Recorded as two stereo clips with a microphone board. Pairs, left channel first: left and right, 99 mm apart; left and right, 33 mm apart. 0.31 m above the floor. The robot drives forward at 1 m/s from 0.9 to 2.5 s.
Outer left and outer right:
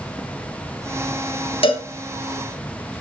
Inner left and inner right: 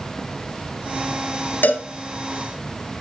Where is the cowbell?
80° left, 1.9 m; by 1.9 s 75° left (ahead or behind), 1.9 m.